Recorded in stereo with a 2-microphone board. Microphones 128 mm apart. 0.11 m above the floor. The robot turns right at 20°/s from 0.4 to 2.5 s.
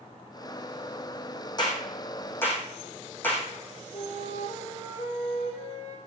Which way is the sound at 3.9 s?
50° left (ahead or behind).